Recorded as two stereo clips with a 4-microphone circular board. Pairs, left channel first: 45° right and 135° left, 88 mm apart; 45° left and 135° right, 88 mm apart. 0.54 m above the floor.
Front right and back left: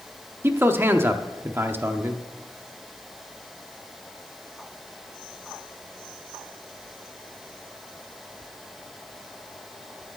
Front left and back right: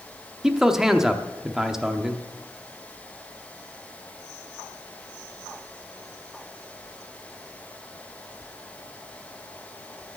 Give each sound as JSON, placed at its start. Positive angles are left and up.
{"t": 0.4, "sound": "a man speaking", "azimuth_deg": 150, "distance_m": 0.7}